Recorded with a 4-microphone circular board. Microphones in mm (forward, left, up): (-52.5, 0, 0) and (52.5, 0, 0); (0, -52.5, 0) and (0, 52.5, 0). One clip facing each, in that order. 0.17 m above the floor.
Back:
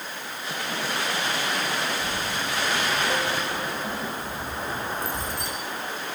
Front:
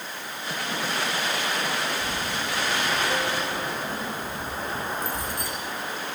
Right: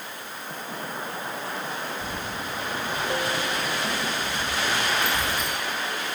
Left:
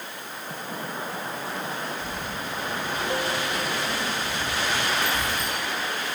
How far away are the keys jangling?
About 5.5 m.